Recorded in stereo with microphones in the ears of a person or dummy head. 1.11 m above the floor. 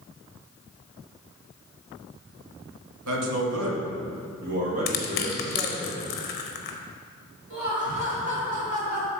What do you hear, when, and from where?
3.0 s a man speaking: 75° right (ahead or behind), 1.7 m; by 5.9 s 15° right (ahead or behind), 3 m
4.9 s crushing: 45° left (ahead or behind), 0.8 m
7.5 s laughter: 45° right (ahead or behind), 3 m